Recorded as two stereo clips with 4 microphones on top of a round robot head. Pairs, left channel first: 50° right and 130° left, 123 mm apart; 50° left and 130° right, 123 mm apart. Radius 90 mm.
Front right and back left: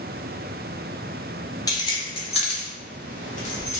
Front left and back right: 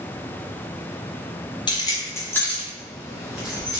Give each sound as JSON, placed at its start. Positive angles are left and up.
{"t": 1.7, "sound": "keys jangling", "azimuth_deg": 5, "distance_m": 0.9}